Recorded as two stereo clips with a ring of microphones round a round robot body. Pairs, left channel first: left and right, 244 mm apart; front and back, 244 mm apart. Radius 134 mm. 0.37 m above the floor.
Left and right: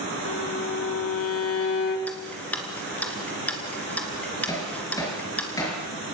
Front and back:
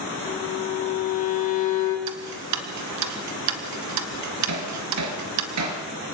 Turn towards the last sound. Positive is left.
turn(degrees=170)